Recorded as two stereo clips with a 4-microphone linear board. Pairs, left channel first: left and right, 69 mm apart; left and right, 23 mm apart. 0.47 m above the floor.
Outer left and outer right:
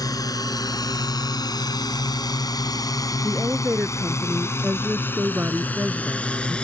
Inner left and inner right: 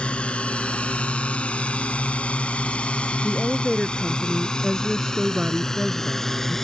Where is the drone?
65° left (ahead or behind); by 6.7 s 15° left (ahead or behind).